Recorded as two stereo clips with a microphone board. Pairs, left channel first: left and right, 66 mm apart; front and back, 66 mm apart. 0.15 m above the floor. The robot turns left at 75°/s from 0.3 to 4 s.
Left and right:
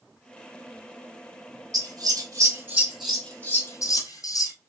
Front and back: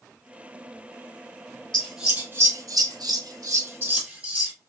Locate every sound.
1.7 s scissors: 80° right, 1.2 m; by 4.5 s 110° left, 1.2 m